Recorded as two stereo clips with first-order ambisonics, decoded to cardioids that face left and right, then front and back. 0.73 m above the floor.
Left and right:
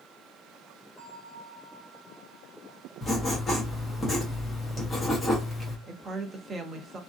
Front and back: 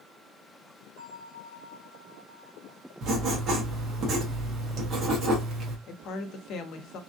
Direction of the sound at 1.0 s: 165° left.